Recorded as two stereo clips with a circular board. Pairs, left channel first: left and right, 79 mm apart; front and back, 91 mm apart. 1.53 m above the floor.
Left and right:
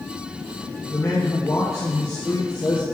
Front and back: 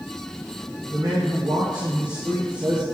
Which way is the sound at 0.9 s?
140° left.